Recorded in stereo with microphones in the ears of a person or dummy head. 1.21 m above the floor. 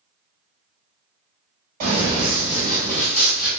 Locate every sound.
1.8 s running footsteps: 35° right (ahead or behind), 1.4 m; by 3.5 s 15° left (ahead or behind), 1.6 m